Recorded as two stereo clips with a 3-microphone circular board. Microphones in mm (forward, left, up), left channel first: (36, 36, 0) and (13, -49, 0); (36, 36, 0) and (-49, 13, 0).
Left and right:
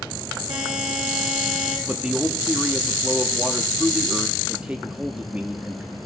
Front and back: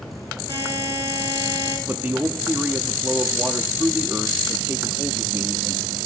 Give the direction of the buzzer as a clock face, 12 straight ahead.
3 o'clock.